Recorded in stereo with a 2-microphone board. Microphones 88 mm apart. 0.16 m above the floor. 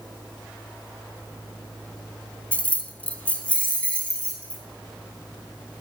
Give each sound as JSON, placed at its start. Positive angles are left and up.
{"t": 2.5, "sound": "keys jangling", "side_deg": 15, "distance_m": 0.7}